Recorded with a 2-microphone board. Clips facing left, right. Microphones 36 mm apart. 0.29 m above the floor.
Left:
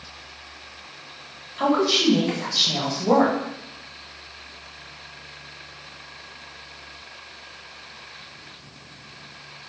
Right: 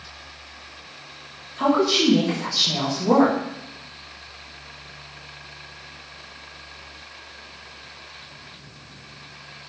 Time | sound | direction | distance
1.6 | a woman speaking | 20° left (ahead or behind) | 1.0 m